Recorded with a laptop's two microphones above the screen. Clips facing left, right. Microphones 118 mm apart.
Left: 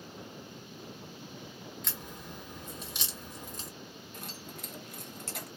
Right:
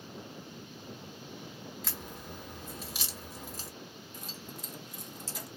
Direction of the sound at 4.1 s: 60° left (ahead or behind).